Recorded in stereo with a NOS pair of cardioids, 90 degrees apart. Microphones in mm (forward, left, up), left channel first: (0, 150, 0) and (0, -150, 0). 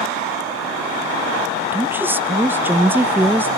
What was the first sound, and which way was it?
A woman speaking, 5° right.